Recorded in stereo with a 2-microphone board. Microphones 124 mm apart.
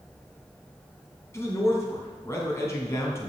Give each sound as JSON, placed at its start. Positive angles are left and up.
{"t": 1.3, "sound": "a man speaking", "side_deg": 20, "distance_m": 3.0}